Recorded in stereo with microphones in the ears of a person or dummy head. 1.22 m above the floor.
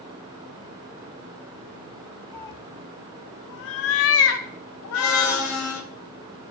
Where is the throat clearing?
No throat clearing in this recording.